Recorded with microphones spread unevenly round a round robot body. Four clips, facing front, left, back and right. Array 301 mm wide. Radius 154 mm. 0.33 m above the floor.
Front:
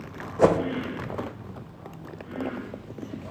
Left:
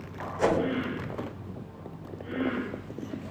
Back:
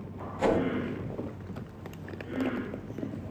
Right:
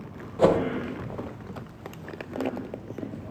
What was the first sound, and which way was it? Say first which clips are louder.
A whoosh: right 5 dB, front 6 dB; 25° right.